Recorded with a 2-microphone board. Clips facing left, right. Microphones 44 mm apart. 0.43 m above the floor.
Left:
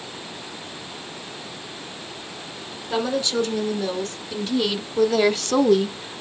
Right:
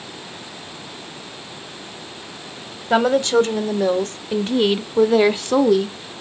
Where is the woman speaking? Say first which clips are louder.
Right 8 dB; 55° right (ahead or behind), 2 m; by 6.2 s 10° left (ahead or behind), 0.8 m.